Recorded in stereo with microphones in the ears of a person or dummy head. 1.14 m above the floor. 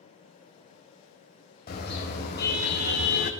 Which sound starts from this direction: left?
A car horn, at 1.7 s.